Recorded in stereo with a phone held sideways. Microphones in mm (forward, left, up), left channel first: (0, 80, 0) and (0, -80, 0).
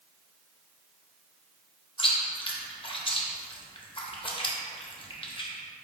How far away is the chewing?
About 0.6 m.